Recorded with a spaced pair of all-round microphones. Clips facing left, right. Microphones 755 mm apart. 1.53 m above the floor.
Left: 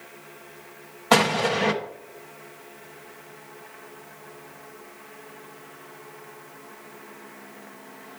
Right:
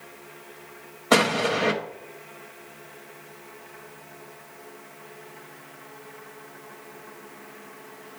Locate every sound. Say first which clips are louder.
1.1 s an explosion: even; 30° left (ahead or behind), 1.0 m